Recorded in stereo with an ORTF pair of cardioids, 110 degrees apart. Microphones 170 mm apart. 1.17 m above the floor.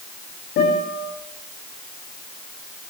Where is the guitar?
65° left, 8 m.